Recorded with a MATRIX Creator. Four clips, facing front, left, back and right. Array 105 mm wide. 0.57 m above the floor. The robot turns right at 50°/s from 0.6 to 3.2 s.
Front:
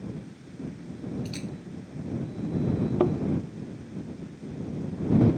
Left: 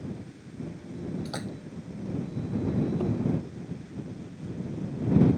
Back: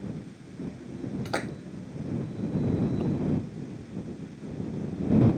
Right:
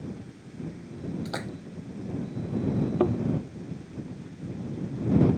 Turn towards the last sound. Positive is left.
turn(degrees=-35)